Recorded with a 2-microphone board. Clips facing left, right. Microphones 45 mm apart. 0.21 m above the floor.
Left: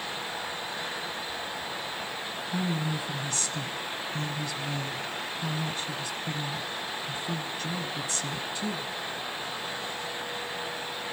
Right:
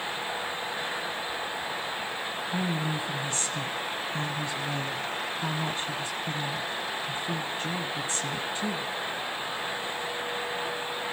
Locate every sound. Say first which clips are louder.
2.5 s a woman speaking: even; 30° right (ahead or behind), 1.4 m